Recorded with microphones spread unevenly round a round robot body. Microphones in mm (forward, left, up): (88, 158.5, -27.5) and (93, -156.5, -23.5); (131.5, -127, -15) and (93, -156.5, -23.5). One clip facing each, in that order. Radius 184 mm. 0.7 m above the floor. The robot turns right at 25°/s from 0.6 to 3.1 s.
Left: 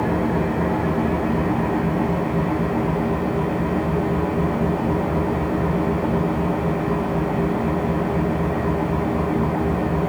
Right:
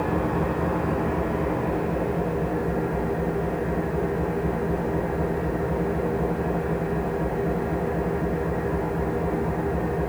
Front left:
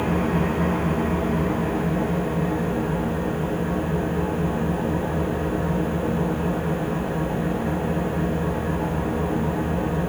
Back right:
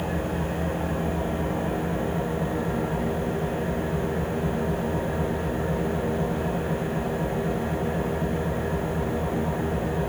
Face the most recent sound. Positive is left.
turn(degrees=110)